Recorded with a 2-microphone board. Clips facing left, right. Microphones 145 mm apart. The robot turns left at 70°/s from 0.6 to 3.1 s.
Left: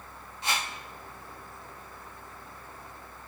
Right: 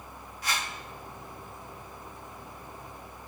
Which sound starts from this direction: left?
A whoosh, at 0.4 s.